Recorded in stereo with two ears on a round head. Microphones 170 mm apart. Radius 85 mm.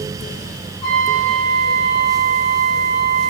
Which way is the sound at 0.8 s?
25° left (ahead or behind).